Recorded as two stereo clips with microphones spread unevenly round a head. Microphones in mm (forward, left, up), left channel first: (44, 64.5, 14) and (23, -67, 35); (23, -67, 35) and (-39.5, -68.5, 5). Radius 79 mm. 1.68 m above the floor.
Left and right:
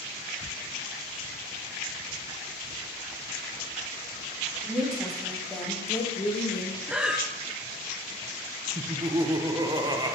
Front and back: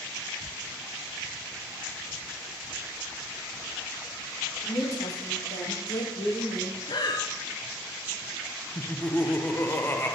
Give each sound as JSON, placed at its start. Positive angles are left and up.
{"t": 4.6, "sound": "a woman speaking", "azimuth_deg": -20, "distance_m": 3.0}
{"t": 6.9, "sound": "breathing", "azimuth_deg": -15, "distance_m": 0.9}
{"t": 8.8, "sound": "laughter", "azimuth_deg": -40, "distance_m": 1.1}